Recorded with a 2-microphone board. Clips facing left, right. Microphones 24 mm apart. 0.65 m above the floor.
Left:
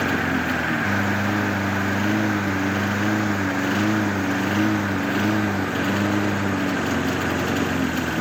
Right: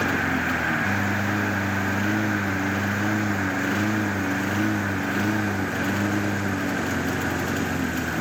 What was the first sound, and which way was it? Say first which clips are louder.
A lawn mower: left 1 dB; 10° left (ahead or behind).